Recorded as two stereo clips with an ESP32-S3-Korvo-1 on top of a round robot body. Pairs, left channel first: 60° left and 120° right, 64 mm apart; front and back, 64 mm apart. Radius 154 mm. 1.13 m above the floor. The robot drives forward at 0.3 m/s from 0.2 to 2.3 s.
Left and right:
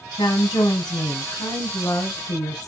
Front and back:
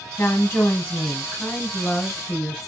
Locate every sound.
0.2 s a woman speaking: 55° left, 1.1 m; by 2.7 s 90° left, 0.9 m